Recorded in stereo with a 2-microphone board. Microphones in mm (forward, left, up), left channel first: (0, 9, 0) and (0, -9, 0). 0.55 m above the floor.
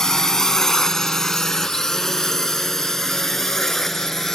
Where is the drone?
30° left (ahead or behind); by 4.4 s 20° left (ahead or behind).